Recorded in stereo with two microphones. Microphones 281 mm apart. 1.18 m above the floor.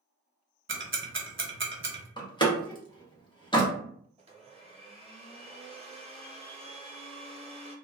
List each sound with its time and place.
0.7 s ticking: 45° right (ahead or behind), 0.6 m
2.2 s a door slam: 15° left (ahead or behind), 0.8 m
4.2 s a blender: 20° right (ahead or behind), 0.6 m